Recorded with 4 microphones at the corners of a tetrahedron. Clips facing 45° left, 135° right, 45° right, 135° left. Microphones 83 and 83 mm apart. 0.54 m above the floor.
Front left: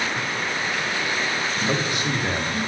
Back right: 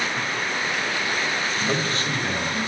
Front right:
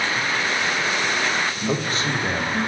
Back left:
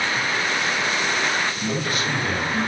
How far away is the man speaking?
About 0.8 m.